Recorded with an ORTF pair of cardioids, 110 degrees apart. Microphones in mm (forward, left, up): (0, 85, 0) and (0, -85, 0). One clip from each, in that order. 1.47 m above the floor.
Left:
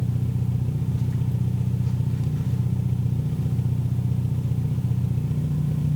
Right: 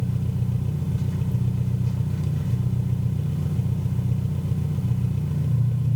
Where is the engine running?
Straight ahead, 0.8 m.